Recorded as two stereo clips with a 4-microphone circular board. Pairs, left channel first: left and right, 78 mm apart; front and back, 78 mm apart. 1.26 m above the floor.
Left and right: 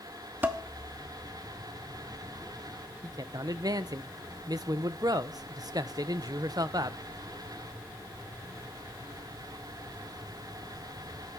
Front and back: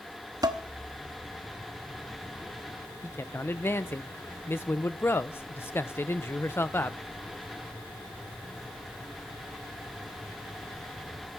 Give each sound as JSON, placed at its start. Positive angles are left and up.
{"t": 0.4, "sound": "dishes clattering", "azimuth_deg": -150, "distance_m": 1.1}
{"t": 3.0, "sound": "a man speaking", "azimuth_deg": -60, "distance_m": 0.8}